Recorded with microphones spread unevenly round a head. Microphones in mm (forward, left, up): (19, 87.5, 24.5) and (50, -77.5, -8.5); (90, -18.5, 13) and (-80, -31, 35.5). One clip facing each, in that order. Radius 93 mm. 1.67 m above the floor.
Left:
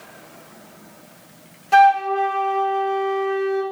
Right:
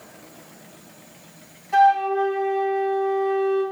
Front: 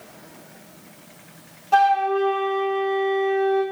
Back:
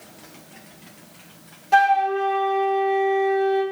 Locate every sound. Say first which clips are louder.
1.7 s a flute: left 3 dB, even; 110° left, 2.5 m